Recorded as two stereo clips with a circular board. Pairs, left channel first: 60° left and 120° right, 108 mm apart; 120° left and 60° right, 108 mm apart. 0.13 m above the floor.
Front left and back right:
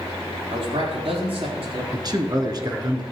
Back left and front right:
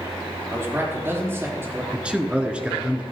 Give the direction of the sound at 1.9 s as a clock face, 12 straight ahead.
4 o'clock.